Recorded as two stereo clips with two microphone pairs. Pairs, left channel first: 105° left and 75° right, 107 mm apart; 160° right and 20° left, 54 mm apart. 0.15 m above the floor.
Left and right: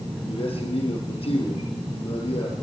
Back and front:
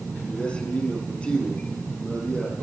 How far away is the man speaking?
About 3 m.